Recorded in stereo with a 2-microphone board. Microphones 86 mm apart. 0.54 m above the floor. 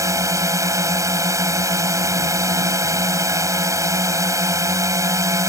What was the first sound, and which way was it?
A drone, 40° right (ahead or behind).